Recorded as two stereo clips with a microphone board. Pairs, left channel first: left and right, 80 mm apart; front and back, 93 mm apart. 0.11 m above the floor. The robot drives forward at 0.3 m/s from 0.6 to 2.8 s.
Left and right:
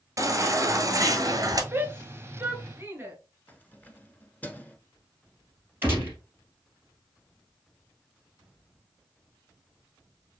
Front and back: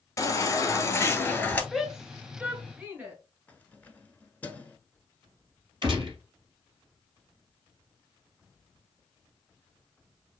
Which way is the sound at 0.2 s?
50° right.